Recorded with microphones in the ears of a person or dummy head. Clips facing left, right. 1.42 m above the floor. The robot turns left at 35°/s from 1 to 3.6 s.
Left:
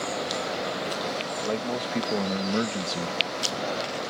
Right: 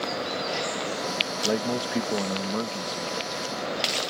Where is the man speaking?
155° right; by 3.2 s 145° left.